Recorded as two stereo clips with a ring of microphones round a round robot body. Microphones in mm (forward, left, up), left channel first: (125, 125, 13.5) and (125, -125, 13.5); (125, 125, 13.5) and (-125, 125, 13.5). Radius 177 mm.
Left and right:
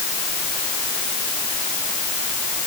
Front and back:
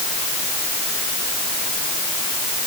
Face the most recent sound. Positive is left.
No sound to turn to.